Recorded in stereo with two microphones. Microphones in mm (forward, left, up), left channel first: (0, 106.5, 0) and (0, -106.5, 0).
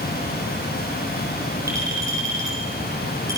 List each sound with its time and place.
1.7 s a clink: 15° right (ahead or behind), 9 m